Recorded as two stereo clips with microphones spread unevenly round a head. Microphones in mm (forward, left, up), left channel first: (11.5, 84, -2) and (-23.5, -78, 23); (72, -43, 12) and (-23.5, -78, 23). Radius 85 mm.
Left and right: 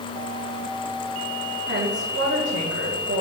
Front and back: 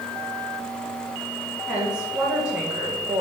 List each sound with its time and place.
1.7 s a woman speaking: 80° right, 2 m